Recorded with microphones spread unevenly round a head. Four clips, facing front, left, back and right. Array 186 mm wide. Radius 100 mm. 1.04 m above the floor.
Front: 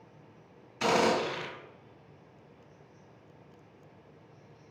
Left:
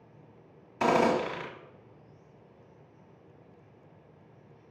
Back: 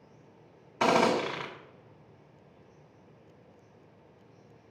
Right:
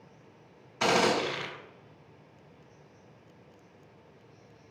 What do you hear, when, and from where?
0.8 s a gunshot: 145° left, 1.8 m